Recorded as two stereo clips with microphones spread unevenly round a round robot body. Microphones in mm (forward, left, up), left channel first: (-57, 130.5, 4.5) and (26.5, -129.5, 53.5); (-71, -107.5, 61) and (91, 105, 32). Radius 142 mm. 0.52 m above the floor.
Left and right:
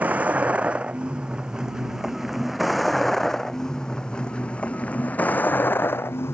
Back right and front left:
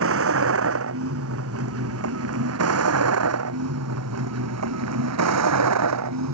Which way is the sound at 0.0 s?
10° left.